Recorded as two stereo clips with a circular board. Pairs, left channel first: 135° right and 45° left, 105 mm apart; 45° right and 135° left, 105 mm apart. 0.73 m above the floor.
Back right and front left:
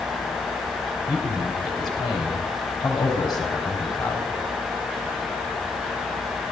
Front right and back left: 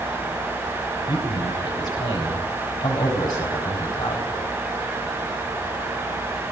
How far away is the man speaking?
About 3.5 m.